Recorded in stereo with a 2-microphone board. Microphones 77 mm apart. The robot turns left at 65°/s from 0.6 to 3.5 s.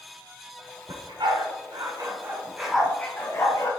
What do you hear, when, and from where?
0.9 s a dog barking: 60° right (ahead or behind), 1.6 m; by 3.7 s 50° left (ahead or behind), 1.6 m